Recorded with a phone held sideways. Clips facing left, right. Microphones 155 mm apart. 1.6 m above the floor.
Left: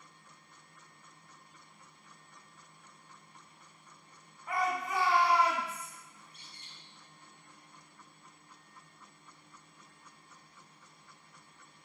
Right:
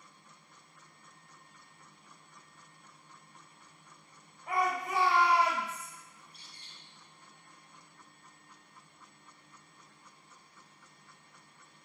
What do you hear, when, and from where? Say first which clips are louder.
4.5 s a shout: right 1 dB; 80° right, 1.8 m
6.2 s a bird: left 1 dB; 35° right (ahead or behind), 0.8 m